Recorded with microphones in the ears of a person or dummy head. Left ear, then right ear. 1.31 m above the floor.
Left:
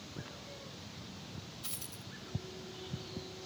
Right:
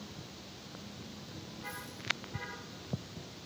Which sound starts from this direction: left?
A dropped coin, at 1.6 s.